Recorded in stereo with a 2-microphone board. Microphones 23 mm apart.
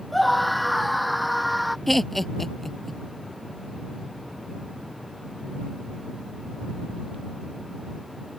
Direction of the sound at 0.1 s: Centre (ahead or behind).